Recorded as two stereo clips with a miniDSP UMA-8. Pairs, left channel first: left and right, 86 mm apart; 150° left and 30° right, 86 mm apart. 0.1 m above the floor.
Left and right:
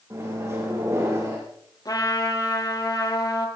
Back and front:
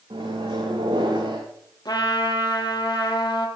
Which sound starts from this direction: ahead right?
A microwave, at 0.1 s.